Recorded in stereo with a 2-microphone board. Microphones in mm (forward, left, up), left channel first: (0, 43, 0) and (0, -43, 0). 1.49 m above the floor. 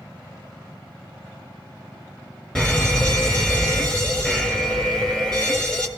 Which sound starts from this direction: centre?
A fire alarm, at 2.5 s.